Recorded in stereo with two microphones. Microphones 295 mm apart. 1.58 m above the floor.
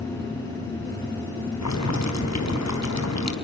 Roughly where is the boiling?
Left.